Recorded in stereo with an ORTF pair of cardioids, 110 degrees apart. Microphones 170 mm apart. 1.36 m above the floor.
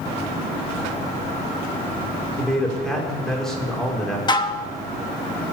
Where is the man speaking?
5° left, 5 m.